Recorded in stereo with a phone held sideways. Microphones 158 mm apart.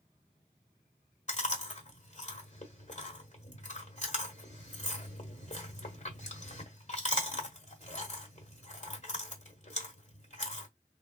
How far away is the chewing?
About 1.5 m.